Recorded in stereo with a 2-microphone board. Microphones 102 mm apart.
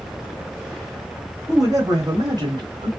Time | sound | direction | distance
1.5 | a man speaking | 30° right (ahead or behind) | 1.3 m